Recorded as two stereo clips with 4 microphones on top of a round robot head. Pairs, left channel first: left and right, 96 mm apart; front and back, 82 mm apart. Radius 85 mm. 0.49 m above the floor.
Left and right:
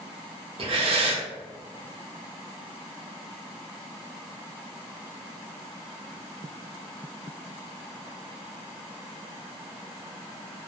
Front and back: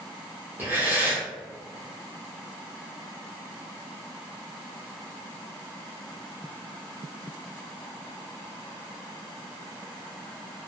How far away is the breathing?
About 0.5 m.